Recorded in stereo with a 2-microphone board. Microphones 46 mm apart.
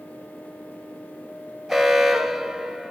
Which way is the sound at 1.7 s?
Centre (ahead or behind).